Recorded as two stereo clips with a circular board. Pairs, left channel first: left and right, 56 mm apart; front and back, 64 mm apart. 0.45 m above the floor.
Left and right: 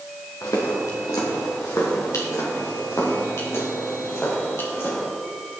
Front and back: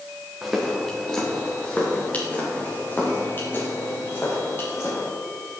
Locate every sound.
0.4 s footsteps: 95° left, 3 m; by 5.0 s 50° left, 8 m